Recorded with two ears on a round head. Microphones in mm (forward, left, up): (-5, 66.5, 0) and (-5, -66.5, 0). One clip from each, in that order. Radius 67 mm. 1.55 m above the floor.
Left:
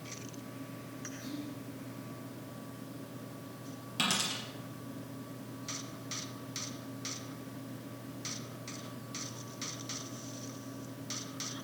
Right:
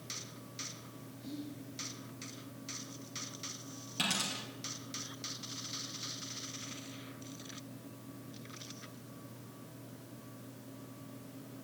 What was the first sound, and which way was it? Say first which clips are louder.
Whispering: even; 35° left (ahead or behind).